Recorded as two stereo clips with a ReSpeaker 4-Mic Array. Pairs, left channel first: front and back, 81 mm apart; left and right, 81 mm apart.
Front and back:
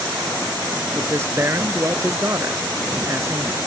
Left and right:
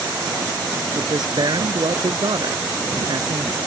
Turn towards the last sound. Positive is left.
turn(degrees=-125)